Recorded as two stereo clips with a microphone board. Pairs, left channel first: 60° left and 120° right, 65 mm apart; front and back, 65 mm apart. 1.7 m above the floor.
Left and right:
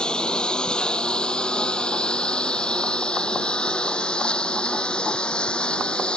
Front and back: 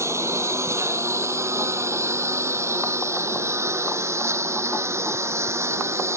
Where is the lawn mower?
135° left.